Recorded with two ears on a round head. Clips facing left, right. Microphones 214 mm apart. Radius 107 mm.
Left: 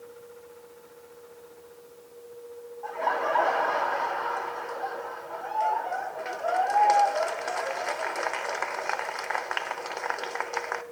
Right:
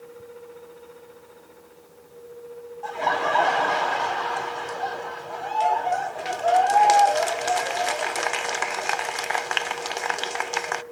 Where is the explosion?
No explosion in this recording.